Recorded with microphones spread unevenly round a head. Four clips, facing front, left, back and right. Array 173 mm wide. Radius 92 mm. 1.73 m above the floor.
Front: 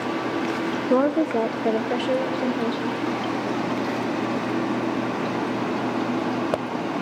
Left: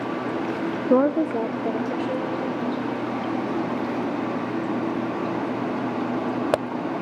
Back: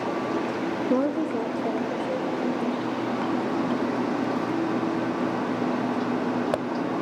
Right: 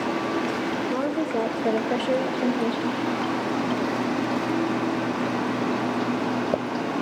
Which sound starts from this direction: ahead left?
A woman speaking, at 0.9 s.